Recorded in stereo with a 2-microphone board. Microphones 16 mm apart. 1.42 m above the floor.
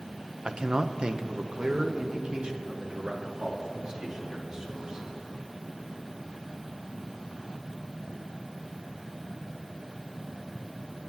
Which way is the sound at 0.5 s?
50° right (ahead or behind).